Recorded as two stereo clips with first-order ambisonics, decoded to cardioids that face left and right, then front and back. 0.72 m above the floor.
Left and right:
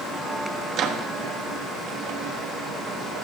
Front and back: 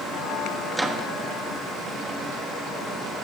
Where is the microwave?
90° right, 1.0 m.